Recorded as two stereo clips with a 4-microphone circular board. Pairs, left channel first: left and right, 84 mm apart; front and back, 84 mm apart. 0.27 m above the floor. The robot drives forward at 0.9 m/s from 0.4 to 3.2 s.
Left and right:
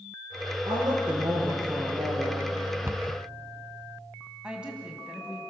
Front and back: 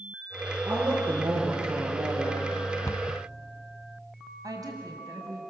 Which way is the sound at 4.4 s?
165° right.